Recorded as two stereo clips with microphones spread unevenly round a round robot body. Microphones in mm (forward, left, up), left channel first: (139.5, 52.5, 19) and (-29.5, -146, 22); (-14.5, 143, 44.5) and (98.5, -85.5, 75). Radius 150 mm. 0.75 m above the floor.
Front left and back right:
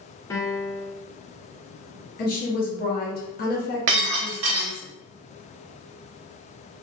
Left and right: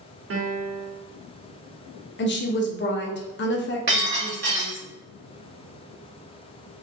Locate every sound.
0.3 s a piano: 30° right, 0.6 m
2.2 s a woman speaking: 95° left, 0.6 m
3.9 s breaking glass: 120° right, 0.7 m